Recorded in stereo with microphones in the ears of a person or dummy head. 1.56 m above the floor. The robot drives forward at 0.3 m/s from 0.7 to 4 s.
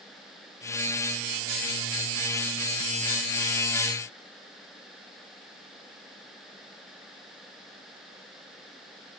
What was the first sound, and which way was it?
Only background noise.